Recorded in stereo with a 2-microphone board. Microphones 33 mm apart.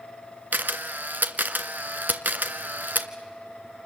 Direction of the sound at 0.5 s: 70° right (ahead or behind).